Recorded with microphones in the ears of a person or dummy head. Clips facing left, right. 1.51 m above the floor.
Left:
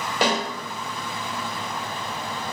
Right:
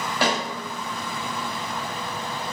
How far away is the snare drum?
About 1.9 m.